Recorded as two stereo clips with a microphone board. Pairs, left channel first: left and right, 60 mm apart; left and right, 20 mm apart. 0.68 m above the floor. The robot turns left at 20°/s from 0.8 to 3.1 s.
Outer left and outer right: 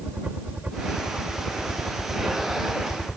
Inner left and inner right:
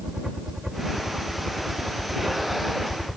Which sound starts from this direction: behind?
A helicopter, at 0.0 s.